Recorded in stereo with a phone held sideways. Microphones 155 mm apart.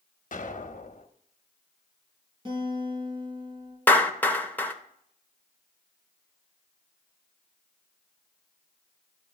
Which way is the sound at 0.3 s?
55° left (ahead or behind).